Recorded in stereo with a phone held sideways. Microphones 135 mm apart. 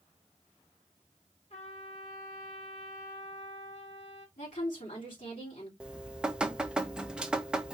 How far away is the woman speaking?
About 3 m.